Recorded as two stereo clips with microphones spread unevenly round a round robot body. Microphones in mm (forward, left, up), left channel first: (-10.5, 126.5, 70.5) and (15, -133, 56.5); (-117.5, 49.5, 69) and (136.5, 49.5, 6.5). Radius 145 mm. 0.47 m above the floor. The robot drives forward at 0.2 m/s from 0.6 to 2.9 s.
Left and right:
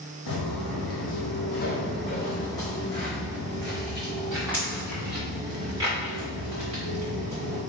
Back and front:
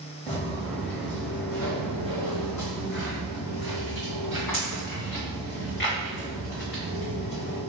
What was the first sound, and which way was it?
Footsteps, 120° left.